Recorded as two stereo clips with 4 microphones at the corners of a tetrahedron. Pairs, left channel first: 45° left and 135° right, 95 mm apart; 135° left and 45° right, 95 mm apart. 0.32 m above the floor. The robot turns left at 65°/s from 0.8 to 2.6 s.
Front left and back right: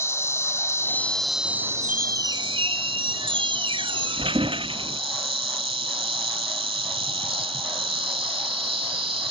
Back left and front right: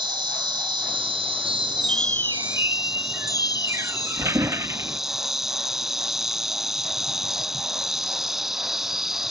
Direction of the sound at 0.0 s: 15° right.